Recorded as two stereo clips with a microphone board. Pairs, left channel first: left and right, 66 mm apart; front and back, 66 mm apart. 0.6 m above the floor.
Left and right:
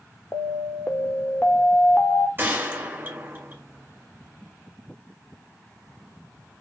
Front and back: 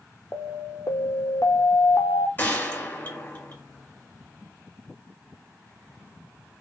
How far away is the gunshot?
About 1.7 m.